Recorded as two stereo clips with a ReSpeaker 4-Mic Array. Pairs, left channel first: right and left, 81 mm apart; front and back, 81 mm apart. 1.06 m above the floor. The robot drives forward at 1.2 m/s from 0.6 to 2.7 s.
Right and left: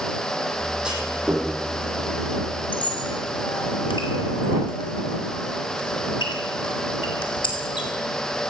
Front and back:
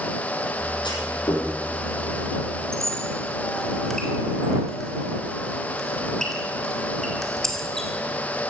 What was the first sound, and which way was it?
A clunk, 10° left.